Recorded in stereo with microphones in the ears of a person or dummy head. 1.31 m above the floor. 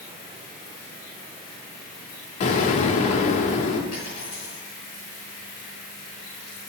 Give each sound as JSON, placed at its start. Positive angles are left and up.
{"t": 2.4, "sound": "an explosion", "side_deg": 35, "distance_m": 1.4}
{"t": 3.9, "sound": "a dropped coin", "side_deg": 25, "distance_m": 5.5}